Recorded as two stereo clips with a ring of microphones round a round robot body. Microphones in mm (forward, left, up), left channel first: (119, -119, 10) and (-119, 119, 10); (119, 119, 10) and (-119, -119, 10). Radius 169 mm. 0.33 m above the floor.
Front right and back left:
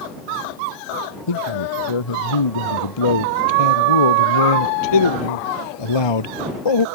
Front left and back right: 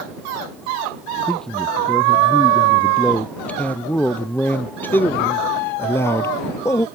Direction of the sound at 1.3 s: 45° right.